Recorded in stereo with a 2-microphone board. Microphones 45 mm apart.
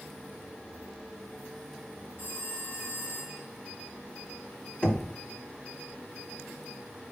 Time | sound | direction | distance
2.2 | a phone ringing | 40° left (ahead or behind) | 4.5 m
4.8 | knocking | 30° left (ahead or behind) | 1.5 m